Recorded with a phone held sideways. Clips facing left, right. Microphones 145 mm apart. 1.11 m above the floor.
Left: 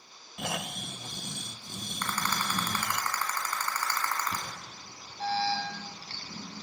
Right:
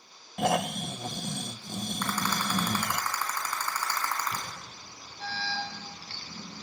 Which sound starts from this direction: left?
An alarm, at 4.3 s.